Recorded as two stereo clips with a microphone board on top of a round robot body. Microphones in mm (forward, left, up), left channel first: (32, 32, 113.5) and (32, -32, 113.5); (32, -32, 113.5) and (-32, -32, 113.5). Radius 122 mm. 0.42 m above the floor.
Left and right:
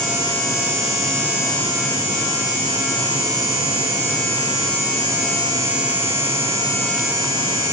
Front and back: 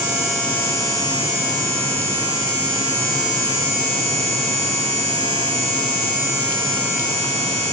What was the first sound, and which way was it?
Only background noise.